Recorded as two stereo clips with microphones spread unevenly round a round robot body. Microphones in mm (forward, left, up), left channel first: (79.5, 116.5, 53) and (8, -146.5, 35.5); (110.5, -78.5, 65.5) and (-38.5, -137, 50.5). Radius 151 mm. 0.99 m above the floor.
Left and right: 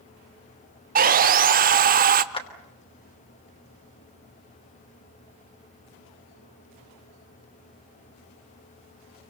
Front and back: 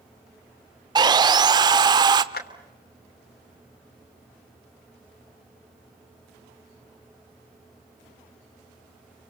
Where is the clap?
5° left, 3 m.